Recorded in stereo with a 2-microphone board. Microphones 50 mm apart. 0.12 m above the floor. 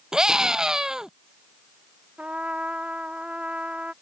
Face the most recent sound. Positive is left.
turn(degrees=-30)  # may be behind; listen again after turning